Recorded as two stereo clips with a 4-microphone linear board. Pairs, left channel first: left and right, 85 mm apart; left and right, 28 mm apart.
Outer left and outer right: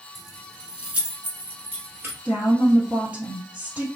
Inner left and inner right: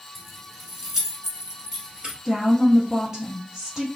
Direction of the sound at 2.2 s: 20° right (ahead or behind).